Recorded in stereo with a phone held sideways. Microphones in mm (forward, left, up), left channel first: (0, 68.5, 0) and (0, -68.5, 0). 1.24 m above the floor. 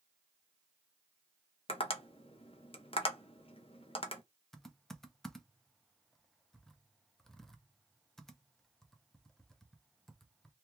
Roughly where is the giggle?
No giggle in this recording.